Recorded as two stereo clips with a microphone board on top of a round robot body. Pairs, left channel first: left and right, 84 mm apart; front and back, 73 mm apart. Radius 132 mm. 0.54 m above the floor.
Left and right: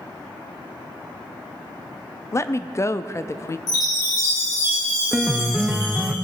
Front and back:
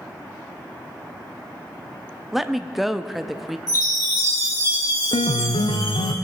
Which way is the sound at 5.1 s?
10° right.